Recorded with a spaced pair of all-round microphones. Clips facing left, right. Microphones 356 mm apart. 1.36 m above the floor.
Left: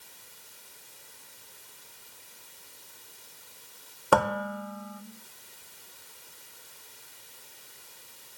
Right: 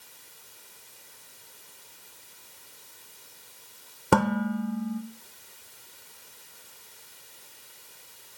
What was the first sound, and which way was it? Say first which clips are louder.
Dishes clattering: right 3 dB; 35° right (ahead or behind).